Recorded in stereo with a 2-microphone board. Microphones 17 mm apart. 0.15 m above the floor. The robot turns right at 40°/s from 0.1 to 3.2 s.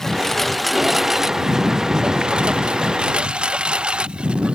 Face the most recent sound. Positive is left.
turn(degrees=-80)